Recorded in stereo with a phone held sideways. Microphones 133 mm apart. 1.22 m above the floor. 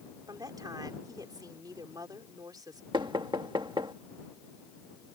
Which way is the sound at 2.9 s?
35° right (ahead or behind).